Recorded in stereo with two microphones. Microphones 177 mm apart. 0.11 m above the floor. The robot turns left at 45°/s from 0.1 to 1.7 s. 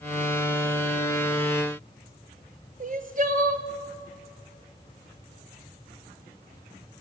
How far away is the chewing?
No chewing in this recording.